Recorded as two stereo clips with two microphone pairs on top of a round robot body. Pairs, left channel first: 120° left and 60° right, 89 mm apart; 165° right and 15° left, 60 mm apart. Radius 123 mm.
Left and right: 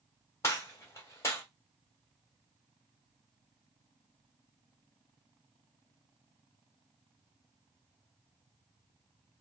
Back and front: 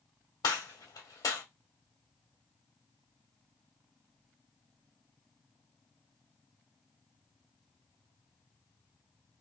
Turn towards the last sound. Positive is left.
turn(degrees=175)